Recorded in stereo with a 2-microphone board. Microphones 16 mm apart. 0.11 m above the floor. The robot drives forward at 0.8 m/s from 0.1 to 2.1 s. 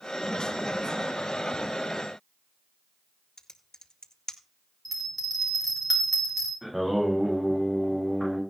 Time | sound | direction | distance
3.4 | typing on a keyboard | 50° left (ahead or behind) | 0.9 m
4.8 | a bell | centre (ahead or behind) | 6 m
6.6 | singing | 20° right (ahead or behind) | 9 m